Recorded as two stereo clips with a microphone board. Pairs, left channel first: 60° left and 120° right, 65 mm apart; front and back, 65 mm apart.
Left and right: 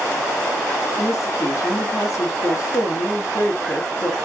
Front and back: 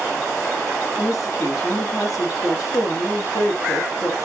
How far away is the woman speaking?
About 3.5 m.